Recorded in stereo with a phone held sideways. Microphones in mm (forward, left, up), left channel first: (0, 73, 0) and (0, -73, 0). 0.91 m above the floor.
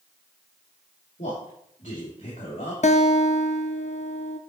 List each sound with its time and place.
1.2 s a man speaking: 60° left (ahead or behind), 2.5 m
2.8 s a guitar: 55° left (ahead or behind), 0.6 m